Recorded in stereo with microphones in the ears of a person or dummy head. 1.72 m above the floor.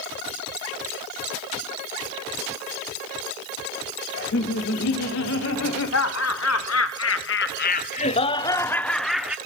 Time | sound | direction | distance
4.1 | laughter | 65° left (ahead or behind) | 2.5 m